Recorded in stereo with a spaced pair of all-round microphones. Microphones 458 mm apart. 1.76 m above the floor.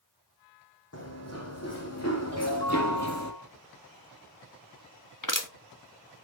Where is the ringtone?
65° left (ahead or behind), 7.5 m.